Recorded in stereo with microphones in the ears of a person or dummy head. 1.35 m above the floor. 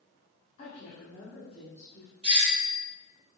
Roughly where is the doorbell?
Right.